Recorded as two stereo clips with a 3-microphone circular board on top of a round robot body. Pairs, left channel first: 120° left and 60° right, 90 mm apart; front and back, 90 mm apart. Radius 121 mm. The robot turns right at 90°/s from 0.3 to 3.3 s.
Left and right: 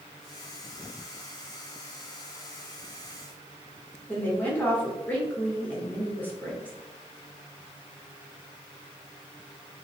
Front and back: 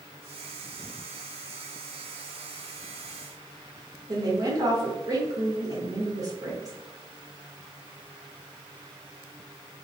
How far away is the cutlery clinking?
No cutlery clinking in this recording.